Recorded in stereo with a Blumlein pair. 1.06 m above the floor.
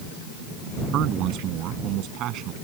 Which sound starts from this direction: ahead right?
A man speaking, at 0.9 s.